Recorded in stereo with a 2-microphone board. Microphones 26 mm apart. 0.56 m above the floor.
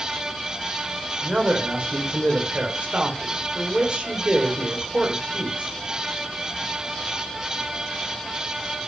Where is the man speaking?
55° right (ahead or behind), 2.5 m.